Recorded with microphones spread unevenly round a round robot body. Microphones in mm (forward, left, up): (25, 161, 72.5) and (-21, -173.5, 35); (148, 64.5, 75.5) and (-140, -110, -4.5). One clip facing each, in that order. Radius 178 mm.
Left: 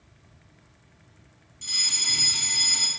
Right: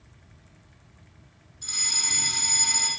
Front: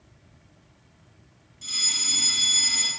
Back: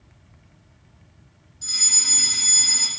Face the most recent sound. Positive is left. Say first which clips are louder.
# even, even
turn(degrees=115)